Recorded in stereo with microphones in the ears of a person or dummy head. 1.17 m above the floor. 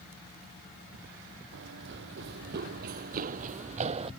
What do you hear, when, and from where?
1.5 s running footsteps: 70° right (ahead or behind); by 4.1 s 35° right (ahead or behind)